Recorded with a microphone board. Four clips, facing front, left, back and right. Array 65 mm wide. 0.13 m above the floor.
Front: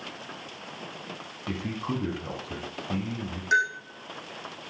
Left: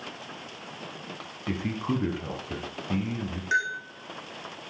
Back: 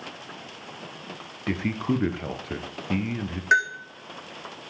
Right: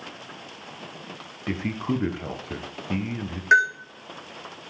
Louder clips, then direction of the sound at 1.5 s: Right 2 dB, back 6 dB; 155° right.